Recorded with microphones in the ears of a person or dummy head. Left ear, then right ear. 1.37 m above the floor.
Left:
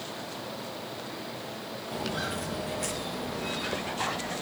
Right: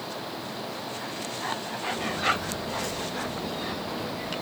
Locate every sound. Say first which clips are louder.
1.9 s footsteps: right 6 dB; 40° left (ahead or behind), 1.9 m; by 4.4 s 5° left (ahead or behind), 2.5 m